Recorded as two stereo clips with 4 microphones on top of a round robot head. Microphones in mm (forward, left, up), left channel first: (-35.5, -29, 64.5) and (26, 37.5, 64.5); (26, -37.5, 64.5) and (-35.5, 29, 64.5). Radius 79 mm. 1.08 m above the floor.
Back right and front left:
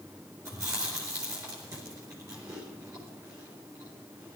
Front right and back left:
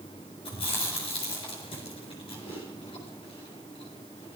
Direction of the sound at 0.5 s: 15° right.